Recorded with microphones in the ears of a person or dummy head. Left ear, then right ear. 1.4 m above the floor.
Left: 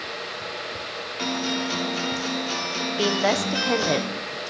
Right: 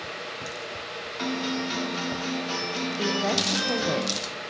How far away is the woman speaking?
About 0.8 m.